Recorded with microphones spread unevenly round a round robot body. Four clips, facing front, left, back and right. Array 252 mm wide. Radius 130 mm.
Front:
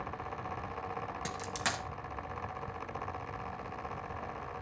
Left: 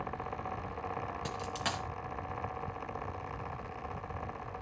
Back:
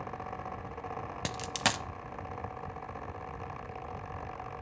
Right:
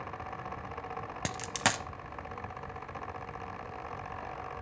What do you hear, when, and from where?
1.2 s a dropped coin: 125° right, 1.0 m